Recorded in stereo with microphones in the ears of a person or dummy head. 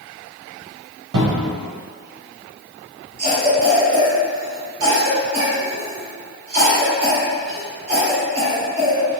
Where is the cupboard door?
90° right, 0.9 m.